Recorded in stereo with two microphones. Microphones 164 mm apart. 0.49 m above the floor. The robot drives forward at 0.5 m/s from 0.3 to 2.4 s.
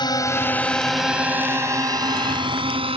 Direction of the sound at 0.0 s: 25° left (ahead or behind).